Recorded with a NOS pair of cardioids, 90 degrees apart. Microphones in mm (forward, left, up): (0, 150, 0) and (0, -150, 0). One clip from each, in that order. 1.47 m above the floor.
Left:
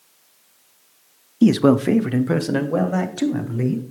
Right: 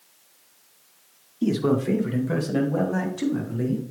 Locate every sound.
1.4 s a man speaking: 50° left, 0.6 m; by 3.8 s 45° left, 2.0 m